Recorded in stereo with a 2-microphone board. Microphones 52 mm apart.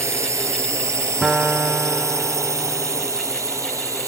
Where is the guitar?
20° right (ahead or behind).